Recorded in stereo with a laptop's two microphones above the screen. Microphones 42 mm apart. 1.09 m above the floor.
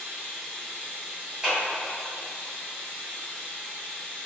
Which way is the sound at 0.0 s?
30° left (ahead or behind).